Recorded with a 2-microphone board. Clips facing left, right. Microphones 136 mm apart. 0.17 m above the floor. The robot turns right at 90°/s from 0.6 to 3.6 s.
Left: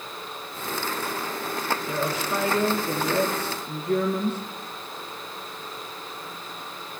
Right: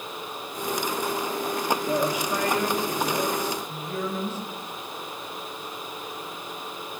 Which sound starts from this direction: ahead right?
A woman speaking, at 1.9 s.